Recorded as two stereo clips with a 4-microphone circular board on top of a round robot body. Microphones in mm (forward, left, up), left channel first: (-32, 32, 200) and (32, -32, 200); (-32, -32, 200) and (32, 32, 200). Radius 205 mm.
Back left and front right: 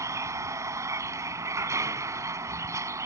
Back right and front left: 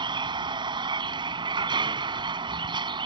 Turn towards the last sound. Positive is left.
turn(degrees=15)